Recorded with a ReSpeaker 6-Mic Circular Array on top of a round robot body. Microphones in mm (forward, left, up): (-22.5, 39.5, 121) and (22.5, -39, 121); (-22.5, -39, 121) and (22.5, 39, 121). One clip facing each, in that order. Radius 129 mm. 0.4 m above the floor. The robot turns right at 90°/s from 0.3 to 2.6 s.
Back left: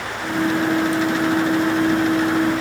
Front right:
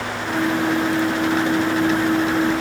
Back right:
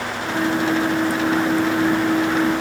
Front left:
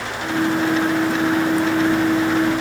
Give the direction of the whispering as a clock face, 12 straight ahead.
I don't hear whispering.